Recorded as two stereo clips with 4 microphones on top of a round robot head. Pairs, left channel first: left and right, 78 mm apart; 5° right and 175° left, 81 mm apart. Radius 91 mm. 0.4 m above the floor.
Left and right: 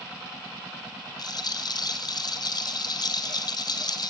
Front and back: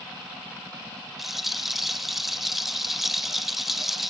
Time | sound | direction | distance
1.2 | a rattle | 85° left | 1.8 m